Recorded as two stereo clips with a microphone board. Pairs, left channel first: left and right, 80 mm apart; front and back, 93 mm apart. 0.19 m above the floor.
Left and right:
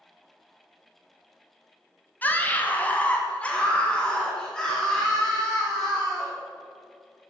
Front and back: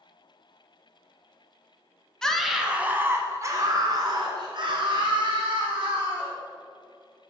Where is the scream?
75° left, 1.1 m; by 6.3 s 175° left, 3 m.